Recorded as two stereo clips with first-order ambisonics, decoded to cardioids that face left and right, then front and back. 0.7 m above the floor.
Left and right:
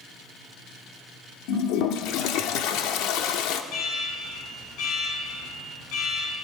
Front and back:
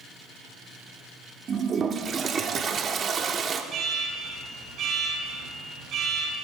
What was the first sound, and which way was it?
A toilet flushing, 115° left.